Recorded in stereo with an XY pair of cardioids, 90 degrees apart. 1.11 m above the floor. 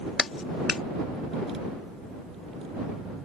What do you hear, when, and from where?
0.2 s a clap: 55° left